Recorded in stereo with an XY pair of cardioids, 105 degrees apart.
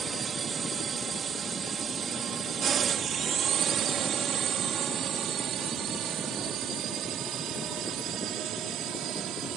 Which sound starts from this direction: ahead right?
A drone, at 0.0 s.